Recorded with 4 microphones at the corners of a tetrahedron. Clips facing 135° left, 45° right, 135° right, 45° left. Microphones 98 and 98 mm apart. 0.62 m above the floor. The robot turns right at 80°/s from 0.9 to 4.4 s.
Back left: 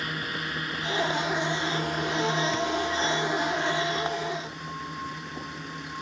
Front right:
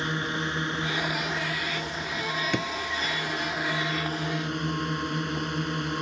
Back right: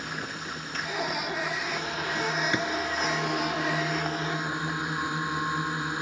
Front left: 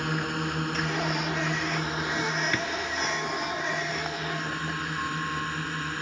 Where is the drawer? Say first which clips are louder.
Back left 1 dB, back right 2 dB; 65° right; by 2.7 s 55° right.